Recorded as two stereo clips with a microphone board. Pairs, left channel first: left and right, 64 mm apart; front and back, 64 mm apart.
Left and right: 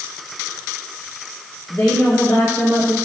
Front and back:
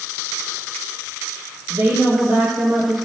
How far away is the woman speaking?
About 3 m.